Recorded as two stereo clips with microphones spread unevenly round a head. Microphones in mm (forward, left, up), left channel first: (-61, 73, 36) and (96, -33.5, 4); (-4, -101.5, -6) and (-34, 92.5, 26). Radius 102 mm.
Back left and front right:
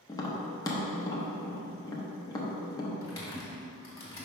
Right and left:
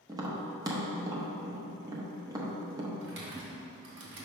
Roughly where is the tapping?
Behind left.